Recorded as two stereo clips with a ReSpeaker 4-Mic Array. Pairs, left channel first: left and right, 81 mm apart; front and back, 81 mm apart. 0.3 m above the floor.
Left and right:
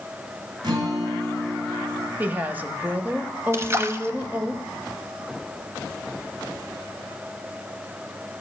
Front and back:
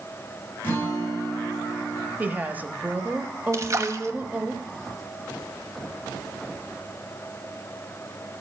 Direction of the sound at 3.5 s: 140° right.